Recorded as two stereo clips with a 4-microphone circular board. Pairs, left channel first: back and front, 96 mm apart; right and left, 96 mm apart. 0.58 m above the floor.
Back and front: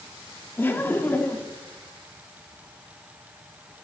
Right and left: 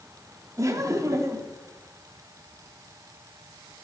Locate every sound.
0.6 s laughter: 125° left, 0.8 m